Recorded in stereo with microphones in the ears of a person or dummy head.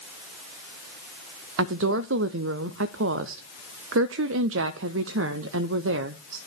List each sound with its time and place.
1.6 s a woman speaking: 70° right (ahead or behind), 0.5 m